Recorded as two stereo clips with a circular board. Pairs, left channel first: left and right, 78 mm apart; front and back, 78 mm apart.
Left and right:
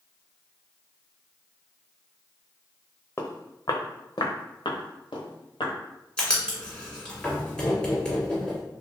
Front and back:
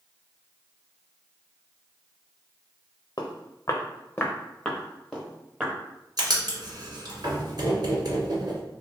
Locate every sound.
3.2 s footsteps: 30° left, 0.8 m; by 5.7 s 100° left, 1.4 m
6.2 s writing: 165° left, 1.4 m